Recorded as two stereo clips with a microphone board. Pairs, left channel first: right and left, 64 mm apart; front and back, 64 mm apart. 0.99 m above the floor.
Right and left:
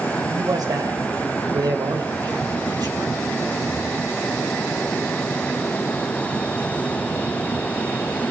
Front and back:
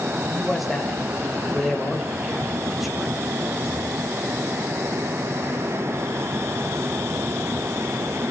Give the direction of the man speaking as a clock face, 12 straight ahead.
9 o'clock.